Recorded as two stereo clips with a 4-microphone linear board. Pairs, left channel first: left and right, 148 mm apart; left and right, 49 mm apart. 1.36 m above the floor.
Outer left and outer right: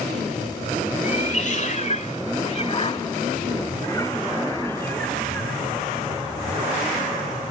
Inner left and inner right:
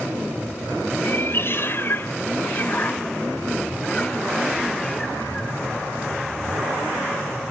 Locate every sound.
1.0 s a cat meowing: 50° left (ahead or behind); by 5.7 s 10° left (ahead or behind)